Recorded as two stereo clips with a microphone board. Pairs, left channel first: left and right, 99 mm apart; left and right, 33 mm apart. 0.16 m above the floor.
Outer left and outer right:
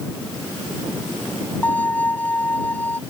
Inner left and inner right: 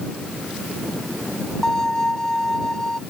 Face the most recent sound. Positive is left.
turn(degrees=15)  # may be behind; listen again after turning